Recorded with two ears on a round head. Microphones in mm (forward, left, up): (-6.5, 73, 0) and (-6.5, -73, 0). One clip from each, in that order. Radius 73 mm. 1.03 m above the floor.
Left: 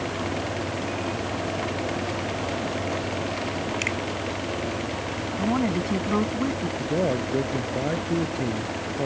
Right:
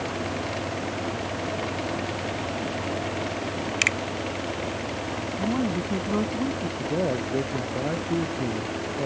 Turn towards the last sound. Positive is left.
turn(degrees=10)  # may be behind; listen again after turning